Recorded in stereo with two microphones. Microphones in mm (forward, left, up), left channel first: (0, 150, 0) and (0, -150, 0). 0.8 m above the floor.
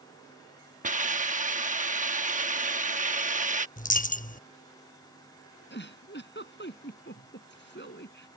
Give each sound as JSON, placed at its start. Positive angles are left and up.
{"t": 0.8, "sound": "a hiss", "side_deg": -25}
{"t": 3.8, "sound": "a dropped coin", "side_deg": 25}
{"t": 5.7, "sound": "a giggle", "side_deg": 35}